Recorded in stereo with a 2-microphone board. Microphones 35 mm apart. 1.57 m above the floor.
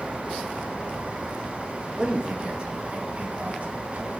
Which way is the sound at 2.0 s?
25° right (ahead or behind).